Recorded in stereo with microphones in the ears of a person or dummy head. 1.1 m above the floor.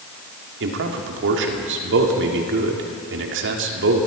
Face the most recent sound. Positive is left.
turn(degrees=-55)  # may be behind; listen again after turning